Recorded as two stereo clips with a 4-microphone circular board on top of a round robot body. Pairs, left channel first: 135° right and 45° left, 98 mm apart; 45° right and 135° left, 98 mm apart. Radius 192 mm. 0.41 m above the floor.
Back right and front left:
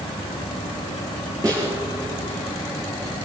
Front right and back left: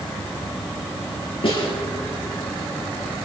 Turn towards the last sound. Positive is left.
turn(degrees=-10)